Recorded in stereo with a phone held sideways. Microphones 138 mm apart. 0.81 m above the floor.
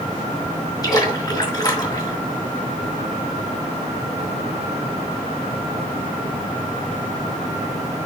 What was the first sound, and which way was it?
A splash, 25° left (ahead or behind).